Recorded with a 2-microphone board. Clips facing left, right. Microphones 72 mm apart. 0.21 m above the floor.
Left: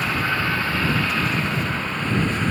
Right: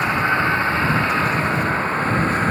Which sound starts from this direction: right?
A vehicle, at 0.0 s.